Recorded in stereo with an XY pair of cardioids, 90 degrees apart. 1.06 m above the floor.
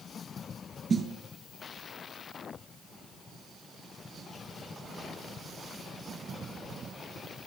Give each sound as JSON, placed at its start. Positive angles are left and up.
{"t": 0.9, "sound": "a snare drum", "azimuth_deg": -40, "distance_m": 6.5}